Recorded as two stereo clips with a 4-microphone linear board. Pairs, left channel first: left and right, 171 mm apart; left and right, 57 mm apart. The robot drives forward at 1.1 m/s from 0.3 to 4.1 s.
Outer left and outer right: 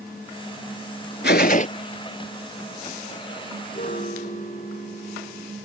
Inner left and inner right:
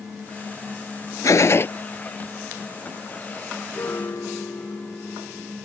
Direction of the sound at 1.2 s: 80° left.